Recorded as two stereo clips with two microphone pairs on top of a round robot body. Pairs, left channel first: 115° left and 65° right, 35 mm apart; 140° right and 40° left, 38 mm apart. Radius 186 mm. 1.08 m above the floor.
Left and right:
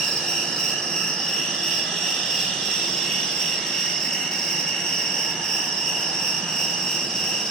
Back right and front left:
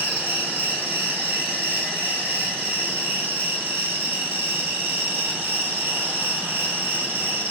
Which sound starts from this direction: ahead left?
An insect, at 0.0 s.